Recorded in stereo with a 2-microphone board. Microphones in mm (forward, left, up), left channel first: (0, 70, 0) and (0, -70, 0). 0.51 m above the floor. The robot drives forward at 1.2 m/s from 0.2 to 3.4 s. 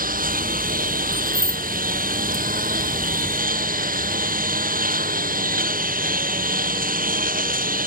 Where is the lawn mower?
85° right; by 7.9 s 90° right.